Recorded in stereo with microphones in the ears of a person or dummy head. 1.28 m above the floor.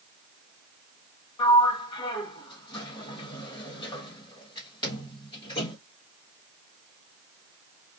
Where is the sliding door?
20° left (ahead or behind), 1.4 m.